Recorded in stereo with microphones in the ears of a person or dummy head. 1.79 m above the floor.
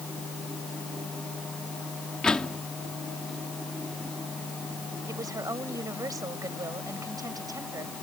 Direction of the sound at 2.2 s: 5° left (ahead or behind).